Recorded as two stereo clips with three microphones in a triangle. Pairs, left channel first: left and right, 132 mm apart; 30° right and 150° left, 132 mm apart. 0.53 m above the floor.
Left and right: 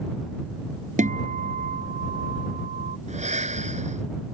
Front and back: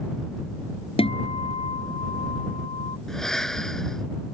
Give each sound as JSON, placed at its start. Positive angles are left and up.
{"t": 1.0, "sound": "a guitar", "azimuth_deg": -75}
{"t": 3.1, "sound": "breathing", "azimuth_deg": -115}